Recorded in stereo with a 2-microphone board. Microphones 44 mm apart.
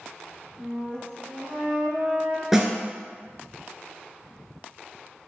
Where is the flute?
20° right (ahead or behind), 1.6 m.